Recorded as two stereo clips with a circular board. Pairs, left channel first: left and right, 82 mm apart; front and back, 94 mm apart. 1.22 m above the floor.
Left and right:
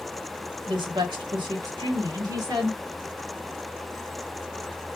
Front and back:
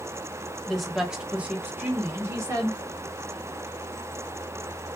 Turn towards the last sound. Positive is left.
turn(degrees=-125)